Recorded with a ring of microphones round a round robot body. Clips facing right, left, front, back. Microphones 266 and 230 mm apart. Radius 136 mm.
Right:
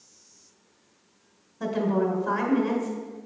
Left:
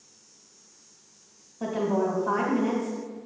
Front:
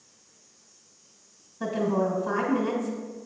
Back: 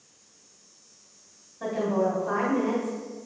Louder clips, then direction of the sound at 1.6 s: Right 1 dB, even; 40° right.